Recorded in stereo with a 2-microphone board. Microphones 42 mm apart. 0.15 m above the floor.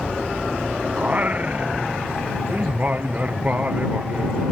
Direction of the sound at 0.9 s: 40° right (ahead or behind).